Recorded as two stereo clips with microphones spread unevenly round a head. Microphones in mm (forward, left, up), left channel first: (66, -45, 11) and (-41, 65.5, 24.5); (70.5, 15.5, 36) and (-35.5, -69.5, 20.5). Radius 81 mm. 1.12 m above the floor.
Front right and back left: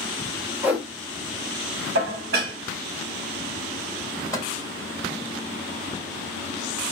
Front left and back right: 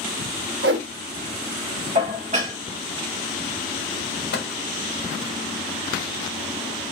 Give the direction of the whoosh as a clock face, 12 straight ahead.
5 o'clock.